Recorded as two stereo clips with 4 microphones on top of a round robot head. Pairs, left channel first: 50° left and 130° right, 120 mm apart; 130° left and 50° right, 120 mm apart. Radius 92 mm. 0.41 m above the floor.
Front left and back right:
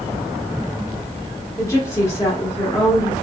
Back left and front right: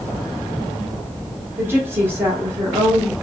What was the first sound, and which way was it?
A woman speaking, 10° left.